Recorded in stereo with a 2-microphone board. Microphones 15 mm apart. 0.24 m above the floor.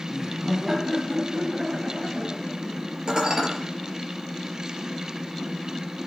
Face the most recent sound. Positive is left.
turn(degrees=-40)  # may be behind; listen again after turning